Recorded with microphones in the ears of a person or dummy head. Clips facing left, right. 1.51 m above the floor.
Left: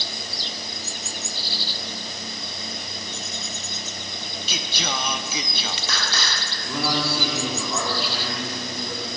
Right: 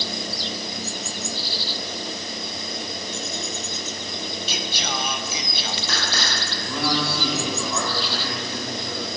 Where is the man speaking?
5° left (ahead or behind), 3 m.